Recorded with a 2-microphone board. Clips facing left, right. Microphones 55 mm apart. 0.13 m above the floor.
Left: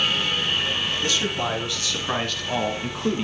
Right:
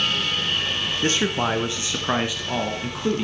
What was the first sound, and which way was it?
A man speaking, 35° right (ahead or behind).